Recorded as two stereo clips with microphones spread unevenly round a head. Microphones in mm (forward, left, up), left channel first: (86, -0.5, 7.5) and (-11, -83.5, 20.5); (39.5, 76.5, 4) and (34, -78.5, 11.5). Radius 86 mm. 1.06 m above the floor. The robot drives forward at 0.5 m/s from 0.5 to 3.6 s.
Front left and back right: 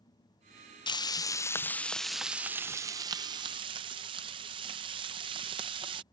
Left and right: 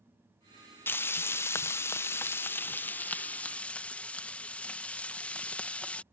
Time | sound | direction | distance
0.9 | frying | 20° left | ?